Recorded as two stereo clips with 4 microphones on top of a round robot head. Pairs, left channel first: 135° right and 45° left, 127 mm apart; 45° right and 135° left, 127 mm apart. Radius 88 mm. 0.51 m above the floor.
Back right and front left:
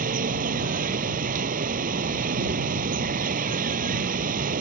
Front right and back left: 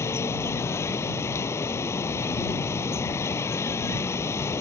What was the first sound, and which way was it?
Running water, 25° left.